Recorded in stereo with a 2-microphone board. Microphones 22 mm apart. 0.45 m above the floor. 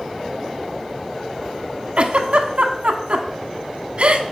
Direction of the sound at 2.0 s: 65° right (ahead or behind).